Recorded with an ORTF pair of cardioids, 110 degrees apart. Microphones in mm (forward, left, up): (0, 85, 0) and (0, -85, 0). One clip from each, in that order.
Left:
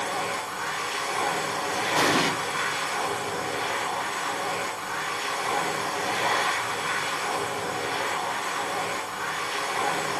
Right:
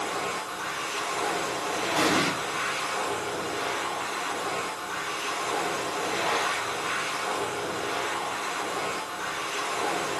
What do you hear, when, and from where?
0.0 s a machine running: 25° left, 1.2 m
2.0 s an explosion: 25° left, 0.9 m